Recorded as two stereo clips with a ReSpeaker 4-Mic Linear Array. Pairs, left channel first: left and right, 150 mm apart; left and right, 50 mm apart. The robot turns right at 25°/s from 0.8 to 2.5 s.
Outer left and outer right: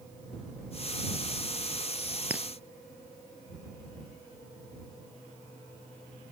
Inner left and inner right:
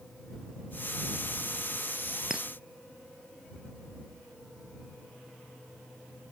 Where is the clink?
10° right (ahead or behind).